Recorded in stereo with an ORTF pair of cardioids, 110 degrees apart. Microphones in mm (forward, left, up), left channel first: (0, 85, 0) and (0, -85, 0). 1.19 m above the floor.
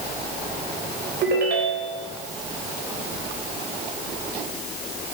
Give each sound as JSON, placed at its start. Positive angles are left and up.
{"t": 1.2, "sound": "a ringtone", "azimuth_deg": -65, "distance_m": 4.0}